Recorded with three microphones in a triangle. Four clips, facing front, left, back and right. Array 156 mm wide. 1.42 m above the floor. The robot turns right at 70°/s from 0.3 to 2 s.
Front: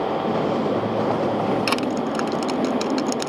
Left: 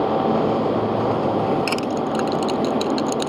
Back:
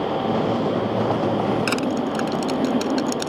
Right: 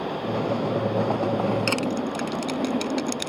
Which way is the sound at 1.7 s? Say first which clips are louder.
Left 4 dB, even; straight ahead.